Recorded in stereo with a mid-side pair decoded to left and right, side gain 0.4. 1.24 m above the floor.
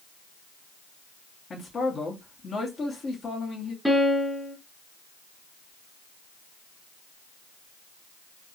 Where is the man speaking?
45° left, 3 m.